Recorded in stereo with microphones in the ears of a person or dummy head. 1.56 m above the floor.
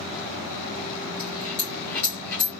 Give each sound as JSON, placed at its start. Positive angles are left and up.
{"t": 1.2, "sound": "a dropped coin", "side_deg": 15, "distance_m": 1.8}